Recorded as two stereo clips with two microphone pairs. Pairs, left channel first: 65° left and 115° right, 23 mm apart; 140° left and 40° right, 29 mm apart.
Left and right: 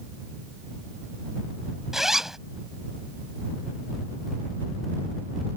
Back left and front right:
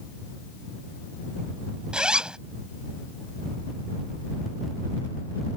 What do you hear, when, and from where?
1.9 s a zipper: 55° right